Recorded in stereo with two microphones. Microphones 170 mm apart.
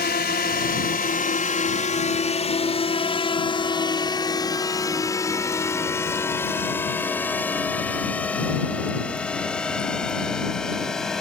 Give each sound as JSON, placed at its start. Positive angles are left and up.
{"t": 0.0, "sound": "a drone", "side_deg": 70}